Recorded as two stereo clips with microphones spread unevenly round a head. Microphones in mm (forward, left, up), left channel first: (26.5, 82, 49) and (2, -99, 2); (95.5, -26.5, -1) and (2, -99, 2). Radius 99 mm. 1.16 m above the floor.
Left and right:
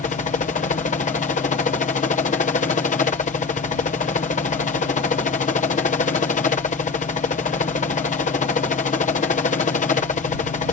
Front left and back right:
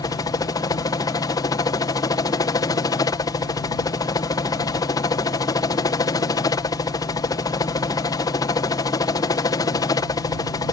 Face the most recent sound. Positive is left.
turn(degrees=50)